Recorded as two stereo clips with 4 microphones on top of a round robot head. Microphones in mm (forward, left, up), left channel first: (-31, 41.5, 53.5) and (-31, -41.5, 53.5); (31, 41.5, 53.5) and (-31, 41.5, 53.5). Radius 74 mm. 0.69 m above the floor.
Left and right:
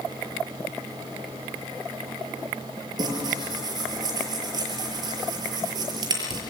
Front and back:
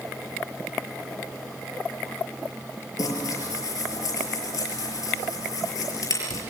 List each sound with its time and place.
3.0 s tearing paper: 40° right, 6 m